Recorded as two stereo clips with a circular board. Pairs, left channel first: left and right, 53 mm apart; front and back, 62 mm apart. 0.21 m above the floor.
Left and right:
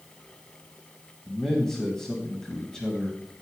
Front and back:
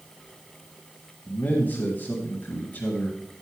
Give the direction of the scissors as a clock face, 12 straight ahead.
No scissors in this recording.